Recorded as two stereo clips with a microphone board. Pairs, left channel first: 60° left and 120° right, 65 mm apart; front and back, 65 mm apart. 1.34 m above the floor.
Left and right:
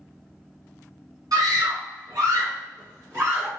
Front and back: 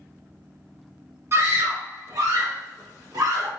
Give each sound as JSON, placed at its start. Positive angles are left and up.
{"t": 1.3, "sound": "a scream", "azimuth_deg": -135, "distance_m": 1.7}